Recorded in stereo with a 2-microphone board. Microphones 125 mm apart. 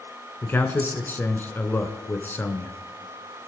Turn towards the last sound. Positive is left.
turn(degrees=15)  # may be behind; listen again after turning